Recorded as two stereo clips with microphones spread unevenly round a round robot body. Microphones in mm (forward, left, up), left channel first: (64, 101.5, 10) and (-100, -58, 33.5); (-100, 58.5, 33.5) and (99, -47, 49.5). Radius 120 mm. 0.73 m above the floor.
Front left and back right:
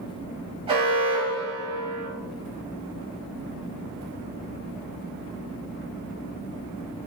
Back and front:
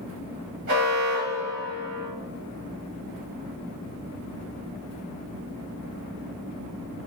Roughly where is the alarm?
Ahead right.